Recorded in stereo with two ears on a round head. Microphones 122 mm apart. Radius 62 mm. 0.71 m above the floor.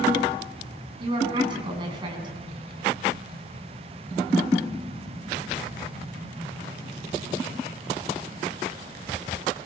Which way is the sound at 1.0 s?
35° right (ahead or behind).